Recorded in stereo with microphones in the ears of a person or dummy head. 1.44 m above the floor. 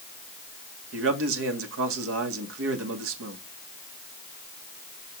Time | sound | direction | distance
0.9 | a man speaking | 80° right | 2 m